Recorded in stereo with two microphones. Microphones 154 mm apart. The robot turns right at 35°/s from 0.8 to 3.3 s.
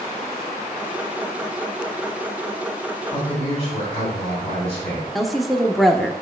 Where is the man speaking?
30° left (ahead or behind), 3 m; by 5.0 s 35° left (ahead or behind), 3 m.